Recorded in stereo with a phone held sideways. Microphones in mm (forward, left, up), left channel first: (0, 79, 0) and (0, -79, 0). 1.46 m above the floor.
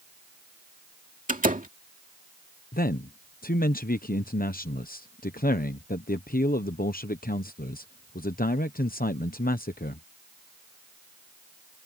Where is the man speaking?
60° left (ahead or behind).